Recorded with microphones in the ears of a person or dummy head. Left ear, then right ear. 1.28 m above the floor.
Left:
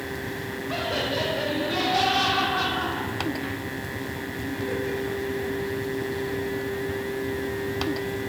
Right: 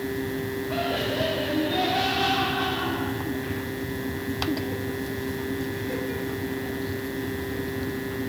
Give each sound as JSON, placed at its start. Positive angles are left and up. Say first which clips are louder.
{"t": 0.7, "sound": "laughter", "louder": "left 1 dB", "side_deg": 70, "distance_m": 4.5}